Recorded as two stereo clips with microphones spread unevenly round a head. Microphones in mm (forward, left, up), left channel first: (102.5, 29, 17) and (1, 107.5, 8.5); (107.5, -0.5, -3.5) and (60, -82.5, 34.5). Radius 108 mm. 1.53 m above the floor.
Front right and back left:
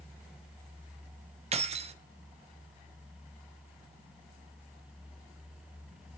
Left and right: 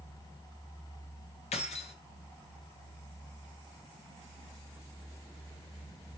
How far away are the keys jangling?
About 0.6 m.